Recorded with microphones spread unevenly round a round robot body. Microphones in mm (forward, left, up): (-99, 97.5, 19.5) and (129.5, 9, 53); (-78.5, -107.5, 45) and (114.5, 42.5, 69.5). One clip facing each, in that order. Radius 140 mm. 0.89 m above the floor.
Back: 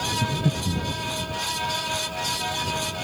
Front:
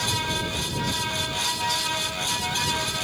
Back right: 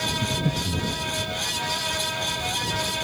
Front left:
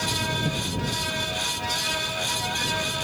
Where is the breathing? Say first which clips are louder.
Back 5 dB, back right 3 dB; 140° left.